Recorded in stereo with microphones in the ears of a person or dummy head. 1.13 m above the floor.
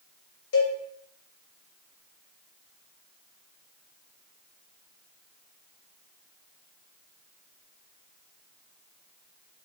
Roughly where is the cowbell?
Left.